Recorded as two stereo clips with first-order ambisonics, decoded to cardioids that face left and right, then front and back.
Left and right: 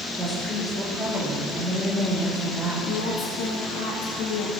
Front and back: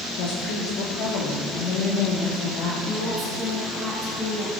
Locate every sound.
0.2 s a woman speaking: straight ahead, 2 m
2.9 s a woman speaking: 75° left, 2.5 m